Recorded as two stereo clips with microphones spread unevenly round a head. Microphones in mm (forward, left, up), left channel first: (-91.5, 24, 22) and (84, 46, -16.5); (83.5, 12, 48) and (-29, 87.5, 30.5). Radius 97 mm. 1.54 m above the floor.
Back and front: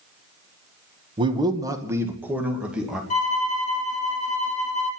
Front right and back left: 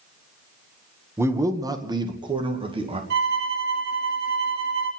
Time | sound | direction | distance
1.2 | a man speaking | 75° left | 1.4 m
3.1 | a violin | 150° left | 3 m